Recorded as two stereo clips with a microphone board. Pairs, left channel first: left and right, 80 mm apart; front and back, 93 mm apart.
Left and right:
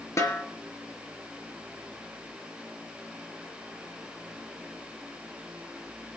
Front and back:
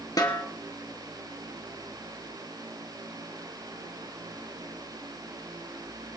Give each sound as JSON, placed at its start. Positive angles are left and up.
{"t": 0.2, "sound": "a snare drum", "azimuth_deg": 45, "distance_m": 2.5}